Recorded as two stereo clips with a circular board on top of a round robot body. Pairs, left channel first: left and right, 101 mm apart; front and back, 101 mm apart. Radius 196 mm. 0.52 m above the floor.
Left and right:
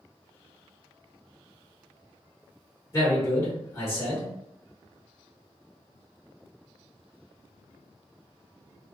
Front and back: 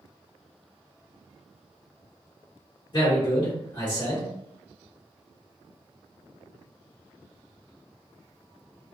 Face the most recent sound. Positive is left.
turn(degrees=35)